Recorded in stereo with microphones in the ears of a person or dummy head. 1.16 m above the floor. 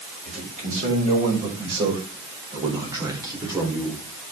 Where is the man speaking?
45° right (ahead or behind), 6 m; by 4.0 s 10° right (ahead or behind), 4 m.